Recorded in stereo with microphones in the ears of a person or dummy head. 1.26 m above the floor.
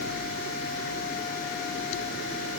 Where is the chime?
No chime in this recording.